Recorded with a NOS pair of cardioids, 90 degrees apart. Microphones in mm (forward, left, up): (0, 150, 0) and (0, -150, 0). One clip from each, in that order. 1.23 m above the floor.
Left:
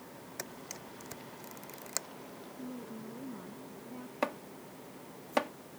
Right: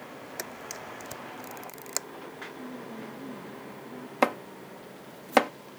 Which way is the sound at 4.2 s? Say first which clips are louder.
Right 10 dB; 60° right.